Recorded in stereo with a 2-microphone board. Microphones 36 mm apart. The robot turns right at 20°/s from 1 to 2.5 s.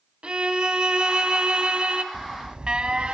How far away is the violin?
About 1.2 m.